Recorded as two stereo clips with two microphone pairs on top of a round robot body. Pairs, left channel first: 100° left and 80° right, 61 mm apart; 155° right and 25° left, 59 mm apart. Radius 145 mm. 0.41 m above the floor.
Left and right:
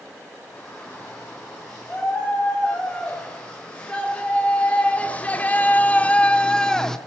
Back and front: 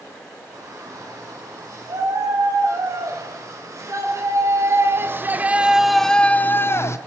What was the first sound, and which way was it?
A shout, 20° left.